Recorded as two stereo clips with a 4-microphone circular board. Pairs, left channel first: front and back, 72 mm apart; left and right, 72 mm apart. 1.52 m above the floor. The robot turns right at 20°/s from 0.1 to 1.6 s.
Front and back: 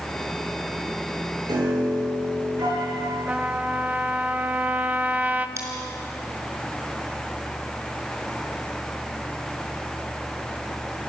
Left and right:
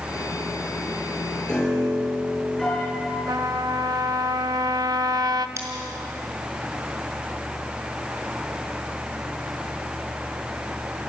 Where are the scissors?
135° right, 5 m.